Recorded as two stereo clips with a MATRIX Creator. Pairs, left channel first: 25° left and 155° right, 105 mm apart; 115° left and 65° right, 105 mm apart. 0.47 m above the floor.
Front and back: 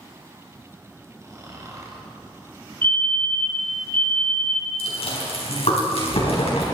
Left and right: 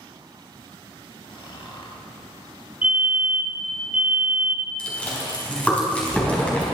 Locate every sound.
1.2 s snoring: 145° left, 2 m
2.8 s a fire alarm: 10° right, 1.7 m
4.8 s chewing: 35° left, 4 m